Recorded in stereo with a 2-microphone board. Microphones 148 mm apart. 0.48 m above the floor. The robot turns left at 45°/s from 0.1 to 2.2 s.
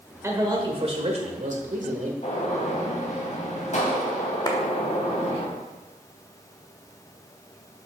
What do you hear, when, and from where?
0.2 s a man speaking: 25° right, 1.5 m; by 2.1 s 105° right, 1.5 m
2.2 s a gunshot: 55° left (ahead or behind), 2.5 m
4.5 s a clap: 25° left (ahead or behind), 1.1 m